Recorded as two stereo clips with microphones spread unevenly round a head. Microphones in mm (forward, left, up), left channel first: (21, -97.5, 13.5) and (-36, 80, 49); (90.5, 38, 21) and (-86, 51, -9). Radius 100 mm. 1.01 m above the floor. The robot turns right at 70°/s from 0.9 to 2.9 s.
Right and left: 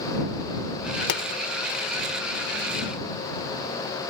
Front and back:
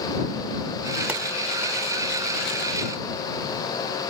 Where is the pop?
100° right; by 1.2 s 90° right.